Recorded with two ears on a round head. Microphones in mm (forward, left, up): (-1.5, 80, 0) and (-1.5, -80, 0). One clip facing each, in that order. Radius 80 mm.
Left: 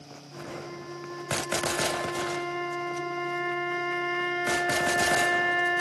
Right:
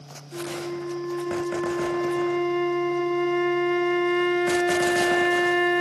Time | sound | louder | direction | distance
0.3 | a flute | right 9 dB | 60° right (ahead or behind) | ?